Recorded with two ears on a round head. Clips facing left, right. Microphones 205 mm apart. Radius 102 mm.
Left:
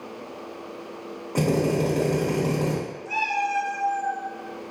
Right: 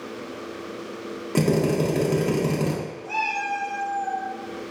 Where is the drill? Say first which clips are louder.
Right 1 dB; 40° right (ahead or behind), 0.8 m.